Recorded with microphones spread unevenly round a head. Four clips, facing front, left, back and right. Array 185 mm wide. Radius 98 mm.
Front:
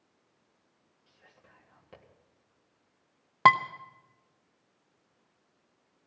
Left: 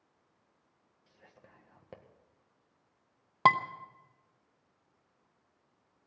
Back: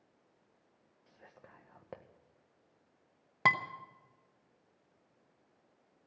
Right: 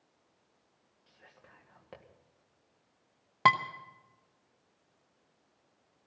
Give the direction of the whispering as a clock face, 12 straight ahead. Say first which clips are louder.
Even, back 4 dB; 6 o'clock.